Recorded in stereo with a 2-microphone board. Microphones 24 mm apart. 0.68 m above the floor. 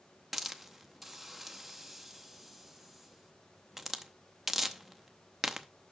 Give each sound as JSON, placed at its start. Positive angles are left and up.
{"t": 0.3, "sound": "a hiss", "side_deg": -10, "distance_m": 0.7}